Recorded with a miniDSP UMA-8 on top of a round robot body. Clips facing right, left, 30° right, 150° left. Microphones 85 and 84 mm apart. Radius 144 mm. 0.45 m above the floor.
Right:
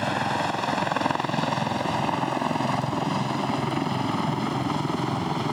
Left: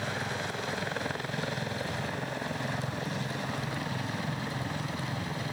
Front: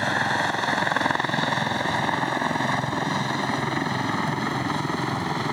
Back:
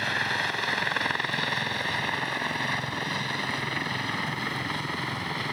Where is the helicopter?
90° right.